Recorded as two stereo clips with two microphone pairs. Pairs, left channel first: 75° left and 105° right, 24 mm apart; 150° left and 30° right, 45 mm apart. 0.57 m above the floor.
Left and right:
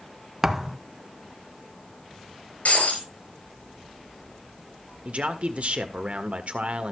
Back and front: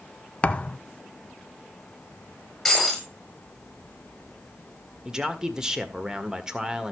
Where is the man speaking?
105° right, 1.6 m.